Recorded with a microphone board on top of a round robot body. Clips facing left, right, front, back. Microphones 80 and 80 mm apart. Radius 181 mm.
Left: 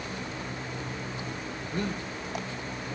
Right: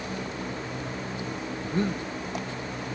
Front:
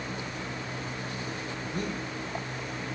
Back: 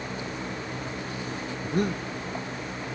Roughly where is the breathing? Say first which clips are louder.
Right 5 dB, back 8 dB; behind right.